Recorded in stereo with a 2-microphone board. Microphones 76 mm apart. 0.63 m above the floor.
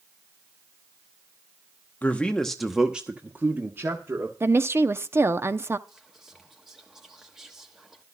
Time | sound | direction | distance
2.0 | a man speaking | 20° left (ahead or behind) | 1.0 m
4.4 | a woman speaking | 35° right (ahead or behind) | 0.6 m
5.9 | whispering | 5° right (ahead or behind) | 1.1 m